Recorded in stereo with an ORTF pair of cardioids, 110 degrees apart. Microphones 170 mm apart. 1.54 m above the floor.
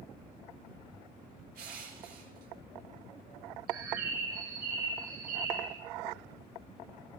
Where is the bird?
70° right, 7.5 m.